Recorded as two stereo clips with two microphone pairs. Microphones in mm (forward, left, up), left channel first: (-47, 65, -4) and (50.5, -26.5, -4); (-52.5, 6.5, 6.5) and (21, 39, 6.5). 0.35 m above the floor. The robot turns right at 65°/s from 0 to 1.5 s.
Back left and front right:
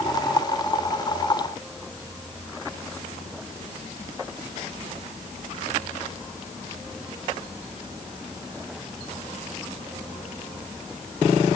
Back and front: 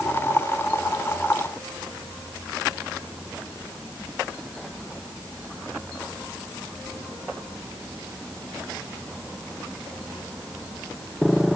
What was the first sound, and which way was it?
Only background noise.